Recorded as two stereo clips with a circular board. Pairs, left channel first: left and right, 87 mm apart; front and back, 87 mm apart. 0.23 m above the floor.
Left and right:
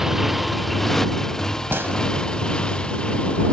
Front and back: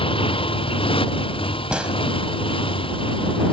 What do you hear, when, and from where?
0.0 s a motorcycle: 5° right; by 3.5 s 10° left
1.7 s a gunshot: 115° right